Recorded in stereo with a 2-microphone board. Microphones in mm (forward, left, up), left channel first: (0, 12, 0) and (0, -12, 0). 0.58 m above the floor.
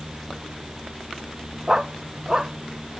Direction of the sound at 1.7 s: 25° right (ahead or behind).